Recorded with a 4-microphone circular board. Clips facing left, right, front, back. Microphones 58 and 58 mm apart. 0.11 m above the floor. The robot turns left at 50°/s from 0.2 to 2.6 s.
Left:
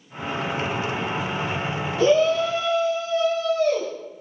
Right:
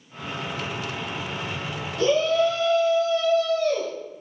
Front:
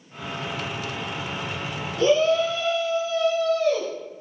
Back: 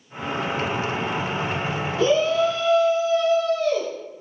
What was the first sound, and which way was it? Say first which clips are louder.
A shout: left 2 dB, even; 110° left.